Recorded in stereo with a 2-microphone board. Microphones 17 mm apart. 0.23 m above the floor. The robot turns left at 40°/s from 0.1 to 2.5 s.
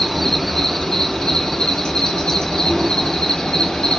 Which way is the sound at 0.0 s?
170° left.